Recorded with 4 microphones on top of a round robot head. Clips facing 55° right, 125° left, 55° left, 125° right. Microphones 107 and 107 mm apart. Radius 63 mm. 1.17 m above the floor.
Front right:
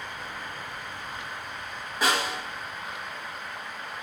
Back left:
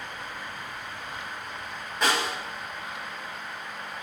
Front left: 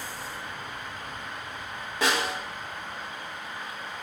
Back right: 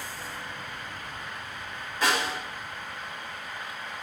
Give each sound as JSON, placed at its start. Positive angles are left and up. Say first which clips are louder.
{"t": 2.0, "sound": "a snare drum", "louder": "even, even", "azimuth_deg": 30, "distance_m": 1.3}